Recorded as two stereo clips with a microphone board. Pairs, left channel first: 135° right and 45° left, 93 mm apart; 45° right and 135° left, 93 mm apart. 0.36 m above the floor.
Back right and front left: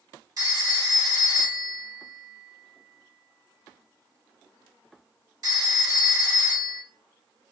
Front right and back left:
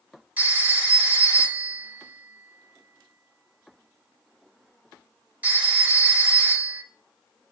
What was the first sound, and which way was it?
A phone ringing, 70° left.